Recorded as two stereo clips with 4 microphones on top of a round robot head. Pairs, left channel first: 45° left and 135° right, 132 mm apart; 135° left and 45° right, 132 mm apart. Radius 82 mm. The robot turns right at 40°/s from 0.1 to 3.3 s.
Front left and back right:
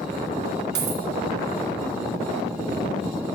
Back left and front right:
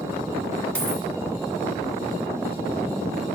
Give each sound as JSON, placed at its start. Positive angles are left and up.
{"t": 0.8, "sound": "a dropped coin", "azimuth_deg": -145, "distance_m": 1.8}